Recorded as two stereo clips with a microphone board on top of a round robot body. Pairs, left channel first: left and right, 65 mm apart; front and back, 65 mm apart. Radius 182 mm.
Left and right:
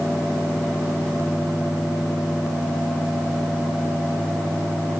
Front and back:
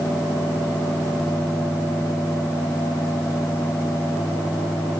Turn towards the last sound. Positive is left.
No sound to turn to.